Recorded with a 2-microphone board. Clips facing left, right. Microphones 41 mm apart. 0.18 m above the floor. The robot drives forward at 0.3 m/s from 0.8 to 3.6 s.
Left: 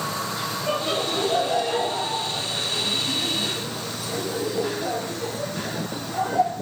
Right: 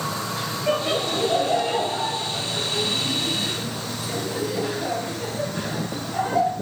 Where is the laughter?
35° right (ahead or behind), 3.5 m; by 6.5 s 45° right (ahead or behind), 3 m.